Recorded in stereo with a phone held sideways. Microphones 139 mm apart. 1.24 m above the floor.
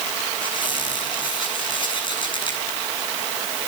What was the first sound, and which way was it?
A squeak, 40° left (ahead or behind).